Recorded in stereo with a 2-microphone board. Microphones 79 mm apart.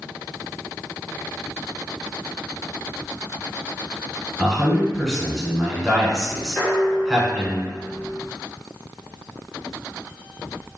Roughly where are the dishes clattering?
Left.